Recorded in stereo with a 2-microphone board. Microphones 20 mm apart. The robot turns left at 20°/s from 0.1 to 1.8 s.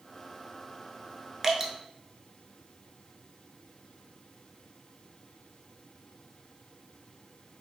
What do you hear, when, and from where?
1.4 s dripping: 15° right (ahead or behind), 0.6 m; by 1.7 s 10° right (ahead or behind), 0.6 m